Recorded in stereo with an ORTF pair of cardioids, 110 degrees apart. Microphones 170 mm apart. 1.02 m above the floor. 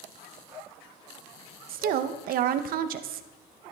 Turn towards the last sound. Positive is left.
turn(degrees=-65)